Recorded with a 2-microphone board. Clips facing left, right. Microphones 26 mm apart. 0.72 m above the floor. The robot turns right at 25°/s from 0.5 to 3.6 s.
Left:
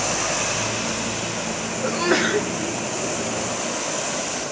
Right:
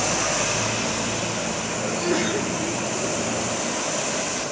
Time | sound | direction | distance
1.8 | a sneeze | 65° left (ahead or behind) | 2 m